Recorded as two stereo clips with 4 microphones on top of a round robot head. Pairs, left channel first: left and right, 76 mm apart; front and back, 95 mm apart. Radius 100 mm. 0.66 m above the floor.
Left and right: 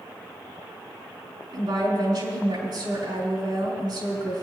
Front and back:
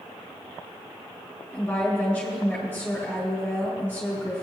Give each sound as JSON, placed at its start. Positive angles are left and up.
{"t": 1.5, "sound": "a woman speaking", "azimuth_deg": -75, "distance_m": 5.0}